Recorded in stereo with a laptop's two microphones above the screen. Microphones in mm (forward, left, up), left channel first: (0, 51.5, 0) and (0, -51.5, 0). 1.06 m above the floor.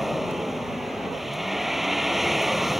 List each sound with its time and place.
0.0 s a vehicle: centre (ahead or behind)